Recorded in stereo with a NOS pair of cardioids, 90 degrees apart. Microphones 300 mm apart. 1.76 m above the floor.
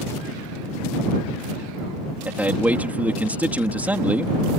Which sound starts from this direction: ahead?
A man speaking, at 2.2 s.